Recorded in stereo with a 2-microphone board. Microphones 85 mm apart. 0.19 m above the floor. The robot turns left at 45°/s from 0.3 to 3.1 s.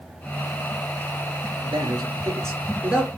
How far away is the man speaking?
About 3 m.